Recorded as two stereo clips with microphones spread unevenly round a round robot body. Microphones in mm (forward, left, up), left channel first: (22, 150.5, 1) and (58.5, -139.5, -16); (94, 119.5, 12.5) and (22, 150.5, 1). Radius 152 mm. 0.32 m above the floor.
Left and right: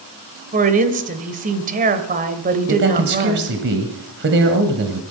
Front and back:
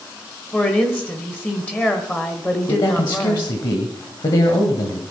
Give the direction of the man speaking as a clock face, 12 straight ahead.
2 o'clock.